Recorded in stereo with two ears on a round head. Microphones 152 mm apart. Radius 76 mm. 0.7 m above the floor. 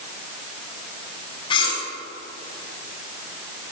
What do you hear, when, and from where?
1.5 s cutlery clinking: 30° left (ahead or behind), 3.5 m